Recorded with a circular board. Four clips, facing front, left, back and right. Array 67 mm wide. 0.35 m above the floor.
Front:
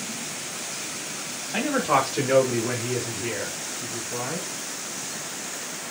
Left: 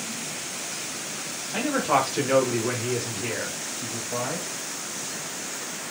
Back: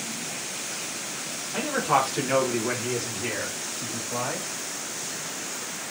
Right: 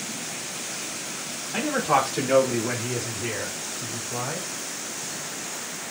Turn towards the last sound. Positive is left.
turn(degrees=145)